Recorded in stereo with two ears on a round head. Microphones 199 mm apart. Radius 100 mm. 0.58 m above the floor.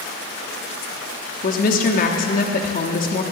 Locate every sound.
1.4 s a woman speaking: 40° left (ahead or behind), 0.8 m